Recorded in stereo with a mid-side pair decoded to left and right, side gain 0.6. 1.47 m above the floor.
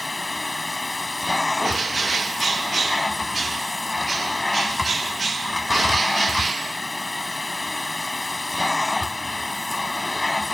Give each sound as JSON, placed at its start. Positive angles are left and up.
{"t": 0.0, "sound": "a machine running", "azimuth_deg": 10}
{"t": 1.6, "sound": "a bird", "azimuth_deg": -25}